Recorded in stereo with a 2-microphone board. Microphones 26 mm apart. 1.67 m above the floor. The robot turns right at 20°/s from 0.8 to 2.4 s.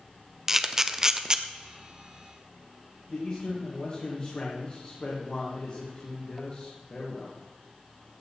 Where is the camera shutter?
15° right (ahead or behind), 0.8 m; by 1.4 s 25° right (ahead or behind), 0.8 m.